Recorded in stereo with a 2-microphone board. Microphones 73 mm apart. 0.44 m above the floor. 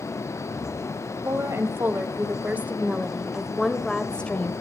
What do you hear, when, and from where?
1.2 s a woman speaking: 40° right (ahead or behind), 2 m; by 4.5 s 20° left (ahead or behind), 1.7 m